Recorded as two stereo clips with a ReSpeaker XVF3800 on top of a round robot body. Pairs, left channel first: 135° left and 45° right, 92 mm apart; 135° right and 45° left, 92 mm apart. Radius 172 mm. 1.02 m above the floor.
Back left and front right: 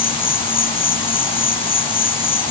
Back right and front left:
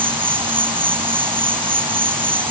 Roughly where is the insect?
Behind left.